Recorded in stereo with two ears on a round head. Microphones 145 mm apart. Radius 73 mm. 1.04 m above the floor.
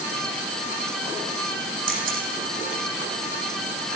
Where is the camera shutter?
55° right (ahead or behind), 10 m.